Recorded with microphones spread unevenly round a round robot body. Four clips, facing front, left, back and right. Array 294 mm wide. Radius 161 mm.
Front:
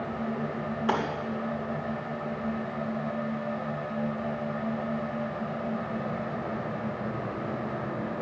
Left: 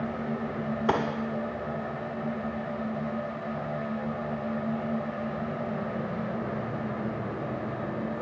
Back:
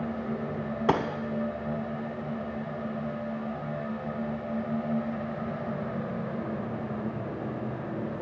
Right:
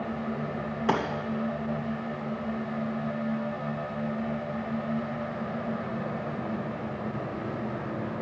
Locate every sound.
0.9 s a gunshot: 175° left, 1.3 m